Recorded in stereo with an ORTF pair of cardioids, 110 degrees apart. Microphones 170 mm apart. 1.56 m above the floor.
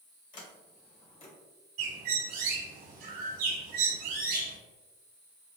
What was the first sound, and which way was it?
A sliding door, 45° left.